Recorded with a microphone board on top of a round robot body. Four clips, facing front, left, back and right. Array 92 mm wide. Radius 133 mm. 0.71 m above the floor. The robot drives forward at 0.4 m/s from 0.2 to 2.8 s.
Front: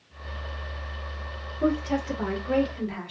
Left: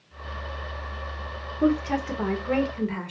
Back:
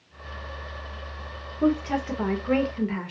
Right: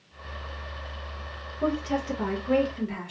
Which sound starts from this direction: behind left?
A woman speaking, at 1.6 s.